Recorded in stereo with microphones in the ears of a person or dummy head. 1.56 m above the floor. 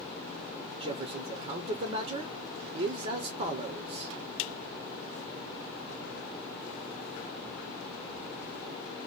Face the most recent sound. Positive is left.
turn(degrees=-35)  # may be behind; listen again after turning